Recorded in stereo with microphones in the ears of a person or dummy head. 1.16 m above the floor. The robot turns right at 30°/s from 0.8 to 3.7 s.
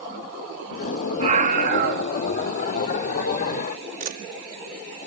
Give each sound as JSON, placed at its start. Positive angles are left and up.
{"t": 1.2, "sound": "a scream", "side_deg": -35, "distance_m": 2.5}
{"t": 4.0, "sound": "a camera shutter", "side_deg": -45, "distance_m": 1.6}